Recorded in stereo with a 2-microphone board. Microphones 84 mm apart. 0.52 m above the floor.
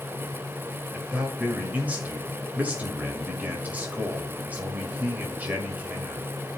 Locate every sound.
0.9 s a man speaking: 20° right (ahead or behind), 1.7 m